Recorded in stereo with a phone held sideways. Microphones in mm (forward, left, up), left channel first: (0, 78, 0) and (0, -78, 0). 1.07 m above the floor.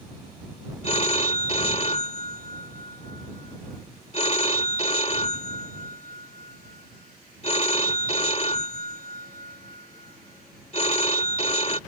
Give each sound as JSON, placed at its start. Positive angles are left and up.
{"t": 0.8, "sound": "a phone ringing", "side_deg": 40}